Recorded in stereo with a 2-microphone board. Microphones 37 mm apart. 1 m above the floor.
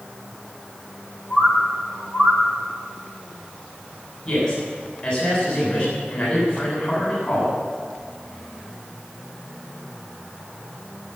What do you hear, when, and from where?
1.3 s a bird: 5° left (ahead or behind), 4 m
4.2 s a man speaking: 40° left (ahead or behind), 8 m